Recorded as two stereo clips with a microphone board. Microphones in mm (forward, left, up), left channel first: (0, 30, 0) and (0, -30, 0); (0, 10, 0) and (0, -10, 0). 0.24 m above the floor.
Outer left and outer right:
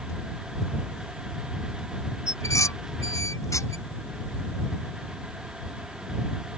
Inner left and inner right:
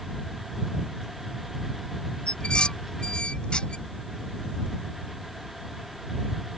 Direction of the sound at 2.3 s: 60° left (ahead or behind).